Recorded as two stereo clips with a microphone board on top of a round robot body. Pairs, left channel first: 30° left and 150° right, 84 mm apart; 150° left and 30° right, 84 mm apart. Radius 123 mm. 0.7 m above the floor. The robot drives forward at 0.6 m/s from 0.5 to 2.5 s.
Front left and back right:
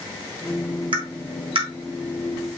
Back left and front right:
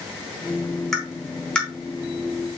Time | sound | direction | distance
0.9 | tapping | 120° right | 3.5 m